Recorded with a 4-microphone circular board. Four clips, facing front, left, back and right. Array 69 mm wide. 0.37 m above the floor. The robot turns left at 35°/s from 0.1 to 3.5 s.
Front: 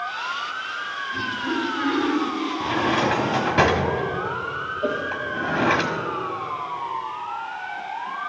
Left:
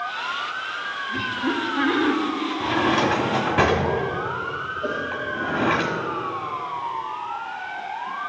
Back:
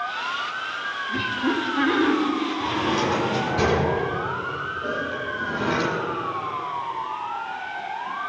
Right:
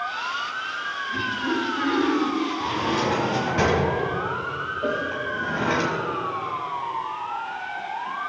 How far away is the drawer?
About 1.2 m.